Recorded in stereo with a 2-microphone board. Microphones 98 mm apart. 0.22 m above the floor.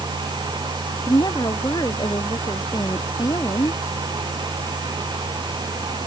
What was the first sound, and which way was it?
A woman speaking, 45° left (ahead or behind).